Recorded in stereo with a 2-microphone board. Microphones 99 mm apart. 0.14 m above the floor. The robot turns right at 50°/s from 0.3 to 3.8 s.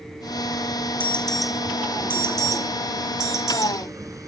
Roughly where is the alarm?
Centre.